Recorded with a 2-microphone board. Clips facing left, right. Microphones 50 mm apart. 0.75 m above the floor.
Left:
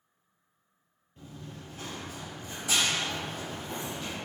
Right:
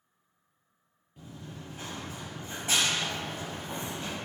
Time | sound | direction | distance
1.2 | running footsteps | 10° right (ahead or behind) | 1.1 m